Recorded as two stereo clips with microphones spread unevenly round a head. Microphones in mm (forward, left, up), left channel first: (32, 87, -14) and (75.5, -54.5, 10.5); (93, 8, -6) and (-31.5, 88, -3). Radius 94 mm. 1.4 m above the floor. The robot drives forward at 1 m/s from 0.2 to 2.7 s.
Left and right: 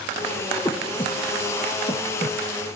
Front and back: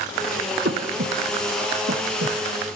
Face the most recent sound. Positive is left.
turn(degrees=180)